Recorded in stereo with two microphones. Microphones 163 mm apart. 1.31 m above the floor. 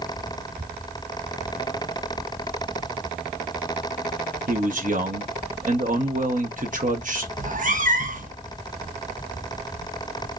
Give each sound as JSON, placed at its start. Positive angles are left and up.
{"t": 4.5, "sound": "a man speaking", "side_deg": -55, "distance_m": 0.9}
{"t": 7.4, "sound": "a cat meowing", "side_deg": -55, "distance_m": 0.7}